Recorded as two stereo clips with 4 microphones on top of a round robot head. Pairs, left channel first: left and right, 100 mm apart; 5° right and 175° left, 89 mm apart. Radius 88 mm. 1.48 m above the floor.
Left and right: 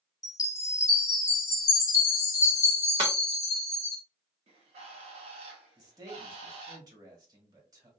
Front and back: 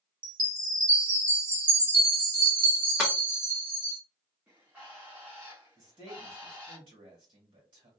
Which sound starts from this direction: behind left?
A chime, at 0.2 s.